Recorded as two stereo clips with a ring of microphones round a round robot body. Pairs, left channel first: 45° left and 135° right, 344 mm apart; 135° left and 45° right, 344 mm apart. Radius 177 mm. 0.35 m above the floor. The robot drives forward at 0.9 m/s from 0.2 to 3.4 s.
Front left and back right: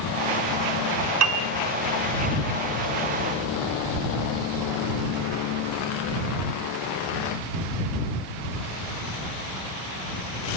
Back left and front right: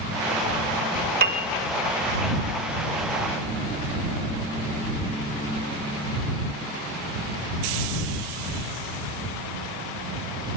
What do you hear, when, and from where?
1.2 s a piano: 105° right, 1.5 m; by 1.5 s 115° right, 1.5 m